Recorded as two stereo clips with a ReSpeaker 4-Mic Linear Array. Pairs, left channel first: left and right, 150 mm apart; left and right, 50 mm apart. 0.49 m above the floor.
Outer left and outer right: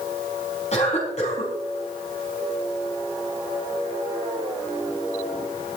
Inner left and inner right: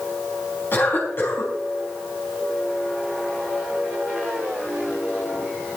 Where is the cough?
45° left (ahead or behind), 5 m.